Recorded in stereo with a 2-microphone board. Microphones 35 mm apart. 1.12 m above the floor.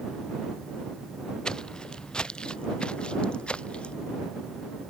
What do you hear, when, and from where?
1.4 s footsteps: 20° left (ahead or behind); by 3.9 s 30° left (ahead or behind)